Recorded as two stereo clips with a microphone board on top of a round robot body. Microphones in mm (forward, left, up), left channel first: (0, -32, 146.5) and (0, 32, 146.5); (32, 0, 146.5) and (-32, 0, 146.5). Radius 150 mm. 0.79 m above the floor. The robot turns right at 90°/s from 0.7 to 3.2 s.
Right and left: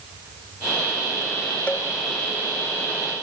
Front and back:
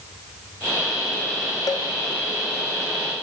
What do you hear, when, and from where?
1.7 s a cowbell: 20° right, 0.7 m; by 1.9 s straight ahead, 0.7 m